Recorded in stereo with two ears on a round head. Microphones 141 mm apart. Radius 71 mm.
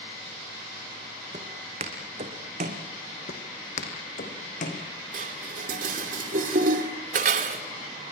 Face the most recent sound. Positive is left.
turn(degrees=-50)  # may be behind; listen again after turning